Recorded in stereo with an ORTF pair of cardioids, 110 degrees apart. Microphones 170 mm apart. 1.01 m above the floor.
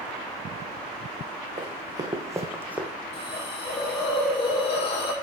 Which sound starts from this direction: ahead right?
Running footsteps, at 1.6 s.